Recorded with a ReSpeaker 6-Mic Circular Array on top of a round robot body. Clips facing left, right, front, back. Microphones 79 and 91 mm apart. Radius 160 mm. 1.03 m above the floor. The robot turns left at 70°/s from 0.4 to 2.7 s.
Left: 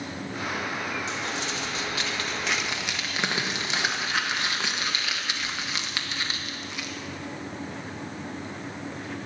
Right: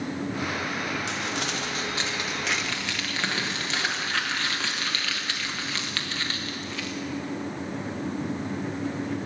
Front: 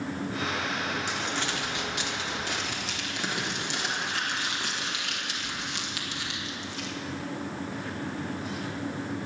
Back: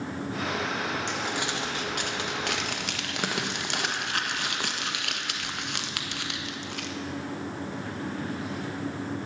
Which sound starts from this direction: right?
Crumpling, at 1.1 s.